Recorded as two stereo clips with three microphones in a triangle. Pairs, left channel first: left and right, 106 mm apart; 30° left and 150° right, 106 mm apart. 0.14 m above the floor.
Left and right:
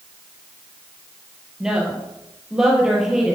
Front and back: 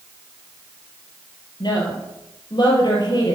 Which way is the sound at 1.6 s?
5° right.